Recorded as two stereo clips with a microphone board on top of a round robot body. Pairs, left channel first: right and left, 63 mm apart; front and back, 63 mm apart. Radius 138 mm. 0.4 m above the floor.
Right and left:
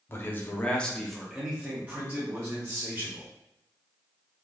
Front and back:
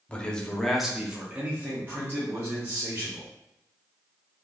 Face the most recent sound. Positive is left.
turn(degrees=135)